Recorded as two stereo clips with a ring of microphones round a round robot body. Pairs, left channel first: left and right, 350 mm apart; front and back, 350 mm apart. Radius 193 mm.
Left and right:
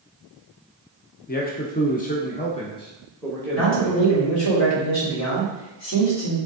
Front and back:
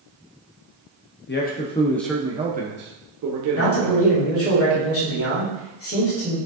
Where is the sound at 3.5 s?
50° left, 3 m.